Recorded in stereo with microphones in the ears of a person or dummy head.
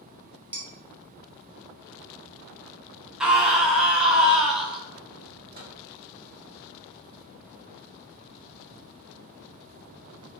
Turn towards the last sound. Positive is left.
turn(degrees=-50)  # may be behind; listen again after turning